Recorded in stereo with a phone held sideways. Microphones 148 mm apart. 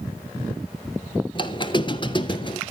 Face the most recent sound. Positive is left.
turn(degrees=35)  # may be behind; listen again after turning